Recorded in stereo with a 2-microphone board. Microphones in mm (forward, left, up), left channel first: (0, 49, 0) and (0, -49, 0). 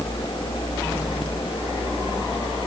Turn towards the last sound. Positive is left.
No sound to turn to.